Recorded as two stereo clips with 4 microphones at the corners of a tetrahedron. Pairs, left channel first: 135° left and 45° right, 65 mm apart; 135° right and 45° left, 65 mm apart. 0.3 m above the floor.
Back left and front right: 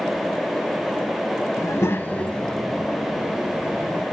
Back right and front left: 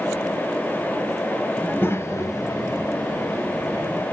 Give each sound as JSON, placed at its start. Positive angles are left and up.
{"t": 1.6, "sound": "a child speaking", "azimuth_deg": 155, "distance_m": 0.9}